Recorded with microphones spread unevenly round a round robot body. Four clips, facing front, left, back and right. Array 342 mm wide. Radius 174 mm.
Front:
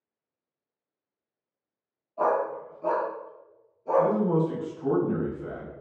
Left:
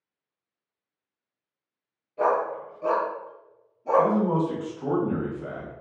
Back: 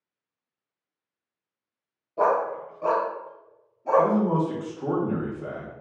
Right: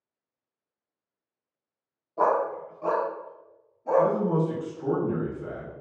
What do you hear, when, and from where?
2.2 s a dog barking: 150° right, 0.7 m; by 4.1 s 165° left, 1.8 m
4.0 s a man speaking: 170° left, 1.4 m